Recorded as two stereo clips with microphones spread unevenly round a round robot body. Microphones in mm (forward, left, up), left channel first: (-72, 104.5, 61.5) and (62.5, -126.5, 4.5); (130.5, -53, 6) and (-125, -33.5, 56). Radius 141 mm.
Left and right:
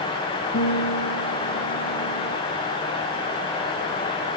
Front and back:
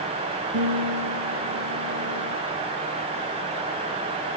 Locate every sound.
0.5 s a guitar: 165° left, 7.5 m